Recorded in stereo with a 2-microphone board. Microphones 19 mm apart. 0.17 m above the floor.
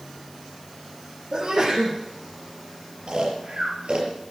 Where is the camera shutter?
No camera shutter in this recording.